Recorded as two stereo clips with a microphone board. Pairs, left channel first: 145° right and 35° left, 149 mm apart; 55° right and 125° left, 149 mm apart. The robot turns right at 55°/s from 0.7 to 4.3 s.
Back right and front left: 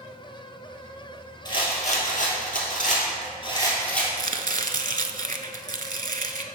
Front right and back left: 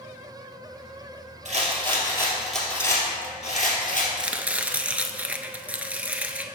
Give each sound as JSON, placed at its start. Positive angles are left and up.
{"t": 1.4, "sound": "a rattle", "azimuth_deg": 155, "distance_m": 2.0}
{"t": 4.2, "sound": "chopping", "azimuth_deg": 40, "distance_m": 0.5}